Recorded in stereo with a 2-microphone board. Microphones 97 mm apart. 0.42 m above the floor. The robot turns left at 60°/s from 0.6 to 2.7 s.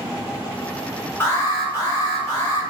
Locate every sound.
1.2 s an alarm: 140° left, 1.8 m; by 2.6 s 55° left, 1.8 m